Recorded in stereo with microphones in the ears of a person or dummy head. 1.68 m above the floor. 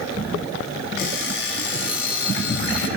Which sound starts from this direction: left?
An alarm clock, at 1.0 s.